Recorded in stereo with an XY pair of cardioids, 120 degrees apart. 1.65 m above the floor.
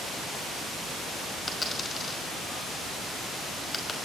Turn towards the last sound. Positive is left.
turn(degrees=25)